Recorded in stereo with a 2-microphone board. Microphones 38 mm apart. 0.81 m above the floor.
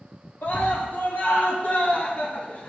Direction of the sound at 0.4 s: 60° left (ahead or behind).